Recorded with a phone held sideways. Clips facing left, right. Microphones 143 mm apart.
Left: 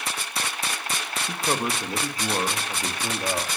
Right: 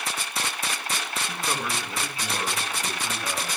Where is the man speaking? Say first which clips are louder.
Left 5 dB; 30° left (ahead or behind), 2.5 m; by 3.5 s 45° left (ahead or behind), 3.5 m.